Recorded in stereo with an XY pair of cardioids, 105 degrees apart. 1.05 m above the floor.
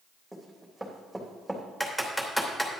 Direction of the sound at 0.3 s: 5° right.